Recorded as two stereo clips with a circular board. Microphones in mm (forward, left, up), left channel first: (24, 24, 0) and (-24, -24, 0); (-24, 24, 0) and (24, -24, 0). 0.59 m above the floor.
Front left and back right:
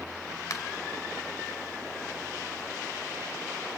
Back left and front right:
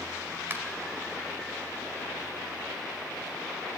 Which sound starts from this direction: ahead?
A finger snap, at 0.5 s.